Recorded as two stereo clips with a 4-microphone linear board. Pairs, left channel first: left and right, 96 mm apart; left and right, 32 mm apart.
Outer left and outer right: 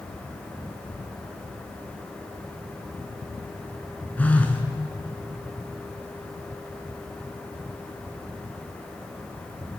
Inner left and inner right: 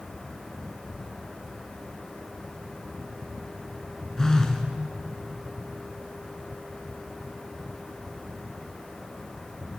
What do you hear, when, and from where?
4.2 s a phone buzzing: 15° left (ahead or behind), 0.6 m